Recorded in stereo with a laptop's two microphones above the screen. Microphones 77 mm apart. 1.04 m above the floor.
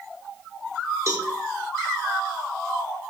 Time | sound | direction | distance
1.1 | a cowbell | 40° right (ahead or behind) | 0.9 m